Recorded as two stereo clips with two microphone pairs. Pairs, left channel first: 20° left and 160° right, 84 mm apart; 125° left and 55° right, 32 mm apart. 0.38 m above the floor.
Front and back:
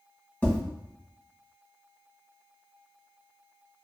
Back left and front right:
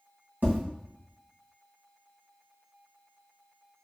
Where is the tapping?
55° right, 1.4 m.